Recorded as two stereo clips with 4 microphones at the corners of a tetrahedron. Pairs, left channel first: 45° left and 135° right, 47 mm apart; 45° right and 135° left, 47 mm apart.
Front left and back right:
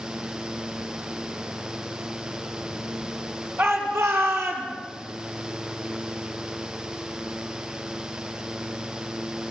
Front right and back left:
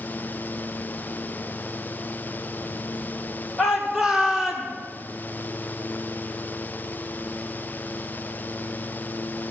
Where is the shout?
155° right, 5.5 m.